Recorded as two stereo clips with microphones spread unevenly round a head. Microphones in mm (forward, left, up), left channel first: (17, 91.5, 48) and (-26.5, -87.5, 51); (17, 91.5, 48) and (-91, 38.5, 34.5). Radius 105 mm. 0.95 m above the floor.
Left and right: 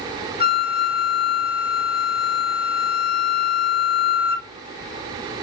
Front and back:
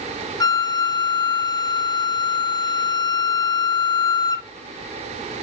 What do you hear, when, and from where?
0.4 s a flute: 80° left, 1.1 m